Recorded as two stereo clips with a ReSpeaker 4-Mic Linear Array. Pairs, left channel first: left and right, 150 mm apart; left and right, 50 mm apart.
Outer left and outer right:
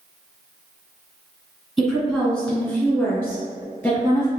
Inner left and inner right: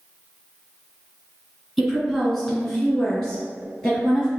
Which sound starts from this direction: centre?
A woman speaking, at 1.8 s.